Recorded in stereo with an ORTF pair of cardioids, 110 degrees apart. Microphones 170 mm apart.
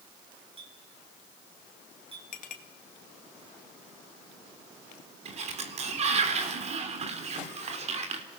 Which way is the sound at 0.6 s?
35° right.